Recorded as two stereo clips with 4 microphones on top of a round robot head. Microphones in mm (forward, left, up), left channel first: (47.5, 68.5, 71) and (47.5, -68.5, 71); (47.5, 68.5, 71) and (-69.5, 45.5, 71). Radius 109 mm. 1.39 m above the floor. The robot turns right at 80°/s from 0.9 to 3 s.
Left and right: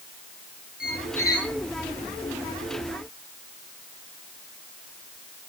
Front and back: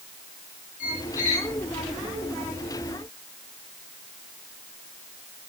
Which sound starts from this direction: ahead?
A squeak, at 0.8 s.